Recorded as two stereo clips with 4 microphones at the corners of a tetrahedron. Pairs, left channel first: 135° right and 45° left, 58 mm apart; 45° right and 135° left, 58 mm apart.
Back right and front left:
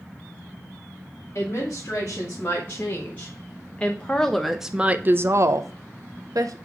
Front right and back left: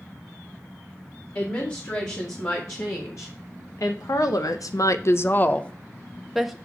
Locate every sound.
1.4 s a woman speaking: 90° right, 2.5 m; by 6.6 s 50° left, 1.1 m